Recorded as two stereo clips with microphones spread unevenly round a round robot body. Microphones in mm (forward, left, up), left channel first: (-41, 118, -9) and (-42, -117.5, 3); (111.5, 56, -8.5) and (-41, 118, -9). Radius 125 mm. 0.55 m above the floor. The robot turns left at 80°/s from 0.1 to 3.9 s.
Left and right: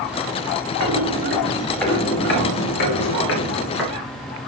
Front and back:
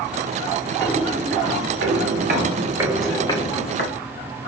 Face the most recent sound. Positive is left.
turn(degrees=-10)